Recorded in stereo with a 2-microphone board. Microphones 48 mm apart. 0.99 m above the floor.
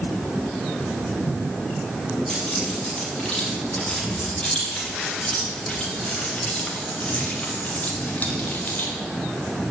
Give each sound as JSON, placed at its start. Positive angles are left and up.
{"t": 2.3, "sound": "keys jangling", "side_deg": 15, "distance_m": 6.0}